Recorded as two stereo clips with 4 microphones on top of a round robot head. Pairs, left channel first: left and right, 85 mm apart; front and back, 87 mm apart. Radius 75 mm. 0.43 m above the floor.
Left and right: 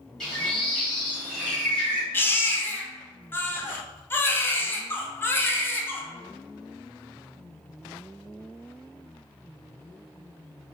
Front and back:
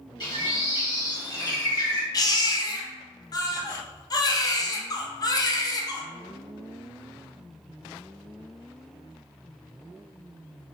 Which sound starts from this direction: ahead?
A bird, at 0.2 s.